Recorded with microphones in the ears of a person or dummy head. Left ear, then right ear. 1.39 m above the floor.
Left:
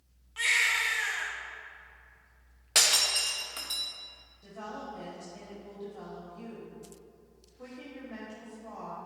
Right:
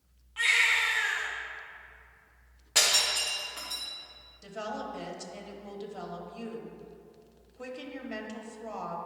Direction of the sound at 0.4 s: 15° left (ahead or behind).